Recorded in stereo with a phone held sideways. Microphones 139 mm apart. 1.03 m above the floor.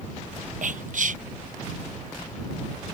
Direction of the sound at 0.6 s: 65° right (ahead or behind).